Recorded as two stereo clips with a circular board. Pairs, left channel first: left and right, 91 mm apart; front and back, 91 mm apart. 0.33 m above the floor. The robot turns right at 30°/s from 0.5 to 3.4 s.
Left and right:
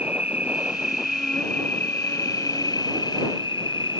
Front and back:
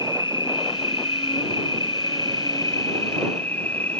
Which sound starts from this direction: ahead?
An insect, at 0.0 s.